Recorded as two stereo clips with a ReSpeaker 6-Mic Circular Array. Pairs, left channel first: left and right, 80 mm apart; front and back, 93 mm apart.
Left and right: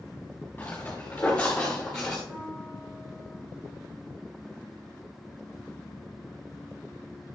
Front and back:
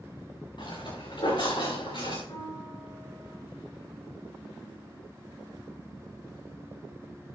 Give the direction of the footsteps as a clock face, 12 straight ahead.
11 o'clock.